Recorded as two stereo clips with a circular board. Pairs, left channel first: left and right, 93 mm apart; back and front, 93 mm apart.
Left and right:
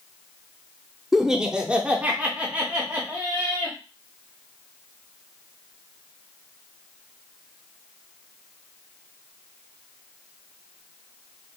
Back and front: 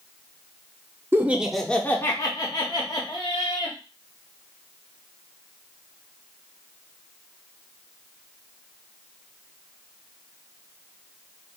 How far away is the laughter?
About 0.7 m.